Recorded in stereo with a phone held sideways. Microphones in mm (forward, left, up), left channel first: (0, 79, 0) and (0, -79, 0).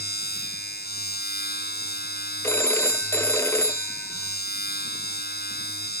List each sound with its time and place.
0.0 s a machine running: 85° left
2.4 s a phone ringing: 15° left (ahead or behind)